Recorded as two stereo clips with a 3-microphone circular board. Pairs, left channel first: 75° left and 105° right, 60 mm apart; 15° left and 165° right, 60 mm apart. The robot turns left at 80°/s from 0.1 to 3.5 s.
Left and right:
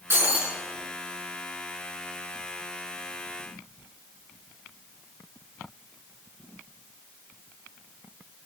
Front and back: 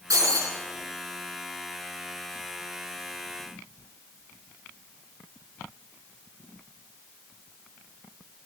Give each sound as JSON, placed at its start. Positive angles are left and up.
{"t": 0.1, "sound": "breaking glass", "azimuth_deg": -155, "distance_m": 4.0}